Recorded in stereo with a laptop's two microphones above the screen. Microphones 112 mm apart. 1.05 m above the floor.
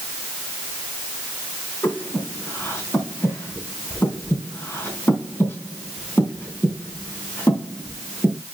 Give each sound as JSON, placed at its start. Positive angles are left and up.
{"t": 1.8, "sound": "breathing", "side_deg": 20, "distance_m": 3.0}